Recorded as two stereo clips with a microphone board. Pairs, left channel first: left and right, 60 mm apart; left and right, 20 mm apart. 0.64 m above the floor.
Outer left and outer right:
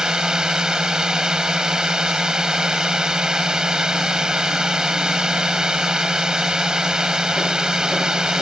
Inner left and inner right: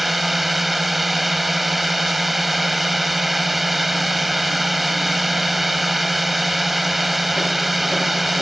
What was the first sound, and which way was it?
A drone, 10° right (ahead or behind).